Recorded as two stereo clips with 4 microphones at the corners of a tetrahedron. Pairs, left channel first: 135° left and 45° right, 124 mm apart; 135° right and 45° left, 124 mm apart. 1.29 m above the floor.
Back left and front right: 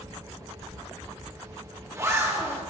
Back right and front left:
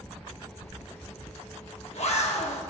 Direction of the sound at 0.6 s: 110° right.